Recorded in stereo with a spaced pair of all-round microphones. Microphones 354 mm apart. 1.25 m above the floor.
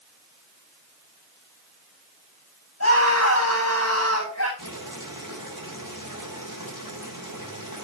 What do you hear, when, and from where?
2.8 s a scream: 45° left (ahead or behind), 9.5 m
4.6 s boiling: 60° left (ahead or behind), 7 m